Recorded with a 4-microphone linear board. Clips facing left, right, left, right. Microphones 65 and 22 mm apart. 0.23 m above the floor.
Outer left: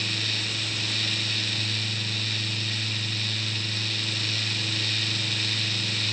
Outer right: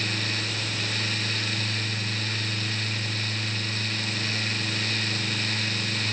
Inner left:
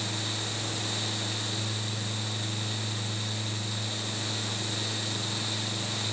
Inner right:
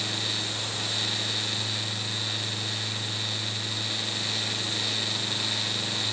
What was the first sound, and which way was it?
Only background noise.